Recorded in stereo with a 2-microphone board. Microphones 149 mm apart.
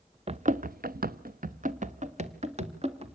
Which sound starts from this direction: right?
Running footsteps, at 0.3 s.